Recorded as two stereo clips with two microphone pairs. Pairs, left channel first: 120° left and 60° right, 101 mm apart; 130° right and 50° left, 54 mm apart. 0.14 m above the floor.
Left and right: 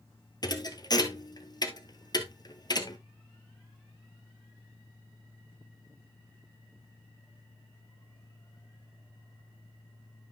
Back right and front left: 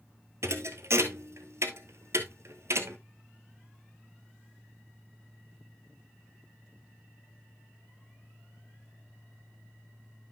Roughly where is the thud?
Left.